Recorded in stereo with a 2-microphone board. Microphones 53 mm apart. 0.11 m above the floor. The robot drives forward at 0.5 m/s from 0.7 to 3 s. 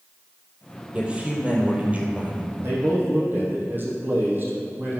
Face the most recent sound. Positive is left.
turn(degrees=-40)  # may be behind; listen again after turning